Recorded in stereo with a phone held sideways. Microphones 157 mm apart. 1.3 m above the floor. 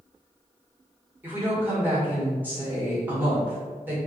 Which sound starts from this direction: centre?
A woman speaking, at 1.2 s.